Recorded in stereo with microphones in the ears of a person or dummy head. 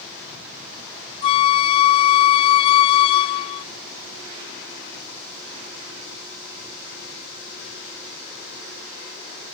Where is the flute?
30° left (ahead or behind).